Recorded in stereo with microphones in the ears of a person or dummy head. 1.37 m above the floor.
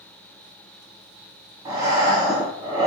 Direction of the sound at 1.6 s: 25° right (ahead or behind).